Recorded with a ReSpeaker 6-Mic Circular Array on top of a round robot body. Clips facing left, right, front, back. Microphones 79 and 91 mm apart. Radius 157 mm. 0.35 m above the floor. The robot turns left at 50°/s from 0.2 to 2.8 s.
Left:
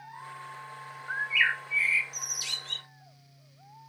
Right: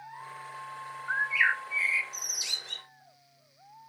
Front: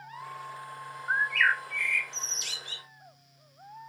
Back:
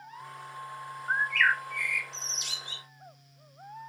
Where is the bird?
70° right, 1.5 m; by 2.9 s 155° right, 1.5 m.